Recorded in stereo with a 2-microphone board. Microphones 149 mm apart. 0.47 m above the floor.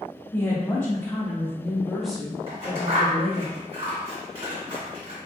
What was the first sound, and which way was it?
A woman speaking, 15° left (ahead or behind).